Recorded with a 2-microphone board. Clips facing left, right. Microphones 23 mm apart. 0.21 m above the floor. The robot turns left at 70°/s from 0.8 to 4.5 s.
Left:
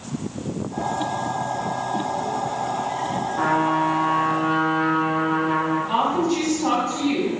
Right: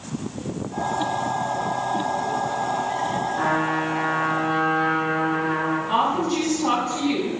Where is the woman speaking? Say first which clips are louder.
Right 1 dB; 20° left (ahead or behind), 1.2 m.